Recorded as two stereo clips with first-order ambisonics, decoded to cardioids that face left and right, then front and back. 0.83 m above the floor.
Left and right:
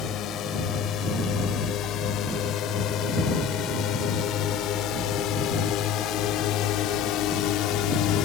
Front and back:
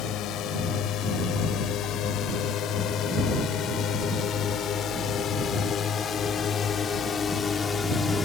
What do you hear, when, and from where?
0.0 s a drone: 40° left; by 8.3 s 70° left